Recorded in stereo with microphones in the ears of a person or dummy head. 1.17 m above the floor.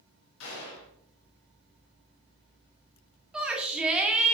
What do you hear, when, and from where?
0.4 s a gunshot: 80° left, 4 m
3.3 s a shout: 5° right (ahead or behind), 2 m